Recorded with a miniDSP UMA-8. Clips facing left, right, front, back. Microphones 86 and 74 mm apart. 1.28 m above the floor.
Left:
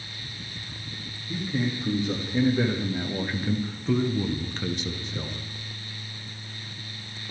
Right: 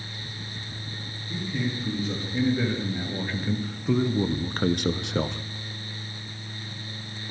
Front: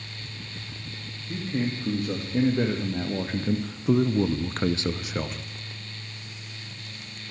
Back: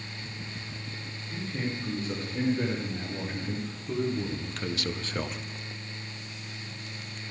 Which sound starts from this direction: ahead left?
A man speaking, at 1.3 s.